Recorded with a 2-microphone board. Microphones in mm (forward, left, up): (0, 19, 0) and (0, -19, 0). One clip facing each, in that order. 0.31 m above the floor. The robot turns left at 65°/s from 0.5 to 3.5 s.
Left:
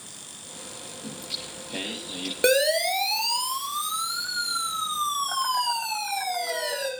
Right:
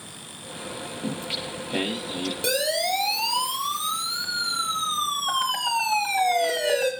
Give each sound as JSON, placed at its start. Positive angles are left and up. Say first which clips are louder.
{"t": 1.0, "sound": "singing", "louder": "right 6 dB", "azimuth_deg": -120, "distance_m": 7.0}
{"t": 2.4, "sound": "a siren", "louder": "left 5 dB", "side_deg": 40, "distance_m": 5.0}